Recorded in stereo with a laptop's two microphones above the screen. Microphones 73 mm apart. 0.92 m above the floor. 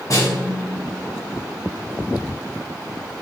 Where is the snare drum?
50° left (ahead or behind), 1.5 m.